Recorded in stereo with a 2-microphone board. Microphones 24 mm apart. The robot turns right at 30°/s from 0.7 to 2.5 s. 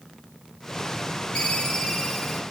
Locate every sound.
1.4 s a ringtone: 140° left, 2.5 m; by 2.4 s 175° left, 2.5 m